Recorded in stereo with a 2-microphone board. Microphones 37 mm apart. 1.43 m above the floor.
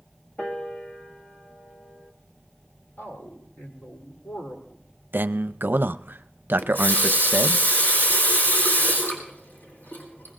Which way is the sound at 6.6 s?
60° left (ahead or behind).